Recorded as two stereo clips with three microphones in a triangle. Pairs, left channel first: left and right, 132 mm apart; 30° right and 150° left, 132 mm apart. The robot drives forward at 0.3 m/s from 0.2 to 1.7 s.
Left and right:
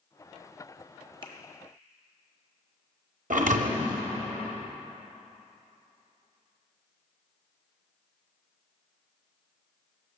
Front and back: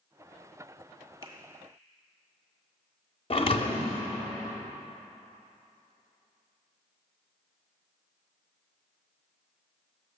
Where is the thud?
75° right, 0.7 m.